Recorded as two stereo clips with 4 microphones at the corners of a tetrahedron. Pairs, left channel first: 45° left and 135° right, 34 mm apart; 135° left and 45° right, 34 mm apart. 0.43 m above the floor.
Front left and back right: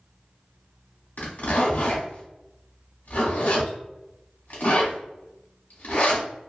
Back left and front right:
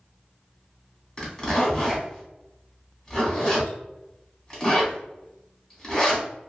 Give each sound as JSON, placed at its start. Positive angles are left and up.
{"t": 1.2, "sound": "a zipper", "azimuth_deg": 60, "distance_m": 1.4}